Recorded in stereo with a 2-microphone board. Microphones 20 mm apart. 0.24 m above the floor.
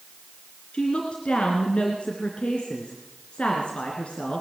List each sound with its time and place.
0.7 s a woman speaking: 70° left (ahead or behind), 3 m